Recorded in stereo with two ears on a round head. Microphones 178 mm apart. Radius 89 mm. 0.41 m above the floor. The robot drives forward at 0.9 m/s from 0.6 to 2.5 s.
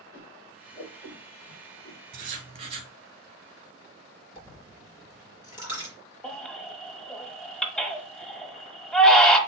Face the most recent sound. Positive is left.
turn(degrees=5)  # may be behind; listen again after turning